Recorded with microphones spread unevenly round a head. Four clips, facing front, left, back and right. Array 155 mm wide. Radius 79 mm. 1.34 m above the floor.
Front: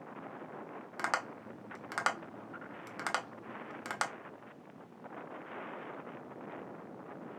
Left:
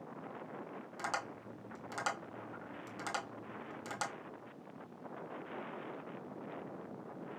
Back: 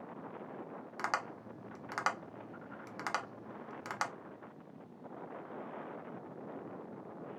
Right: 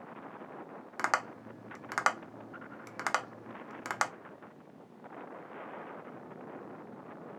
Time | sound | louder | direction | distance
1.0 | tapping | right 8 dB, front 2 dB | 65° right | 0.8 m